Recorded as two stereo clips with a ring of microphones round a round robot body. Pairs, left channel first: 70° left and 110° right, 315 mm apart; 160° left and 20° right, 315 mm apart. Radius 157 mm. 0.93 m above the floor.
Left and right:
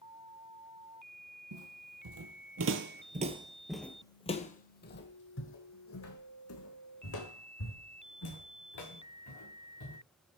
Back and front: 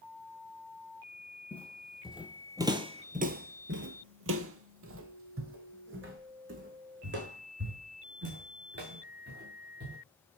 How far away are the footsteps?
About 1.8 m.